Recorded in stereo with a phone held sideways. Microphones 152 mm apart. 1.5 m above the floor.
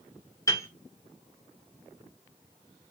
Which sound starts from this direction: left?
A piano, at 0.5 s.